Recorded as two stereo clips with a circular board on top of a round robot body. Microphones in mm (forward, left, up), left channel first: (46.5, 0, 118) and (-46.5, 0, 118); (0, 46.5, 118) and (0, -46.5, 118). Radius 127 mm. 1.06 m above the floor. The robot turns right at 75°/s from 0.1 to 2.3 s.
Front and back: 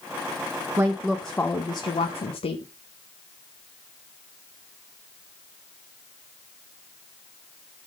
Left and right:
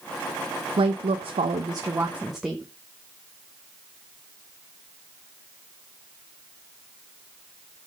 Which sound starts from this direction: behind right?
A woman speaking, at 0.8 s.